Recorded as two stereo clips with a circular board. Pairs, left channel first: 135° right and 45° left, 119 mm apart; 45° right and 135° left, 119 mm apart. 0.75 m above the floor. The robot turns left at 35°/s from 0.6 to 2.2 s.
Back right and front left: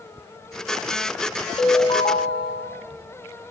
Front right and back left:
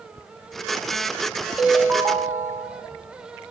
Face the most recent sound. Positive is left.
turn(degrees=-165)